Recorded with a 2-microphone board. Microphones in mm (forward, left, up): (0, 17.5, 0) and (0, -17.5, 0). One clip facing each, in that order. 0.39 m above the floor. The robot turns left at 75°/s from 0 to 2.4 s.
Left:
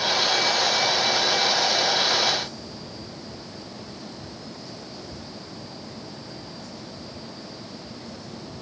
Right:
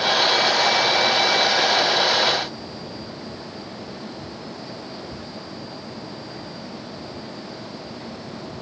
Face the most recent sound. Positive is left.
No sound to turn to.